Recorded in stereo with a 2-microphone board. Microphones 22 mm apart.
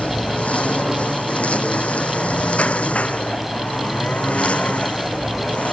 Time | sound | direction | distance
0.0 | a lawn mower | 85° left | ?